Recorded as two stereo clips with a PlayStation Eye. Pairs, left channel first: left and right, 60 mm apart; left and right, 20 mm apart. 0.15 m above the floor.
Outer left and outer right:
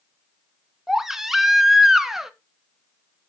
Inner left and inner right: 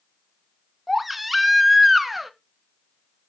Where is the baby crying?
5° right (ahead or behind), 0.6 m.